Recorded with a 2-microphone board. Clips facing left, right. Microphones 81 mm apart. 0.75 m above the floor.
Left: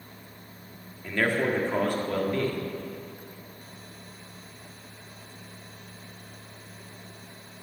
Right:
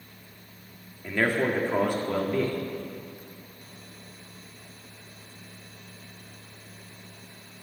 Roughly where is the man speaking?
Centre.